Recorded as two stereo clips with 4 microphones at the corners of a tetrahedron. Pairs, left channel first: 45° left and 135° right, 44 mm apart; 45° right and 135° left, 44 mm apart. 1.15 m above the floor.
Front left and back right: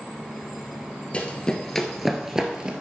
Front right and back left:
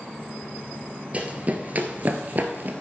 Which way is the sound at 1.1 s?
95° left.